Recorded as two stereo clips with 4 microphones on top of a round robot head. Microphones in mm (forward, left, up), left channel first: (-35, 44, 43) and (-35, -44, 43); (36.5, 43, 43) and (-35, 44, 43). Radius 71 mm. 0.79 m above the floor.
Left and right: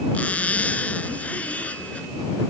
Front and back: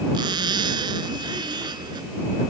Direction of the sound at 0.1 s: 165° left.